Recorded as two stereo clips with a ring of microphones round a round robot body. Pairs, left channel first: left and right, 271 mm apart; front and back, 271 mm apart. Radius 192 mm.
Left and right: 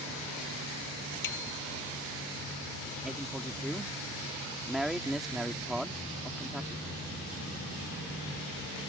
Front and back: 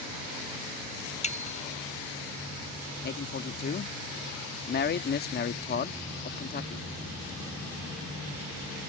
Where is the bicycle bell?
65° left.